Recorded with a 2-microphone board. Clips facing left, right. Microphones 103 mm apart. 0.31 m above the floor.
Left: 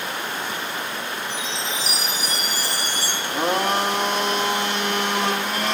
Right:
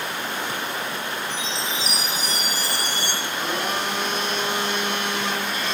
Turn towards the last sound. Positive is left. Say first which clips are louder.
# left 8 dB
turn(degrees=70)  # may be behind; listen again after turning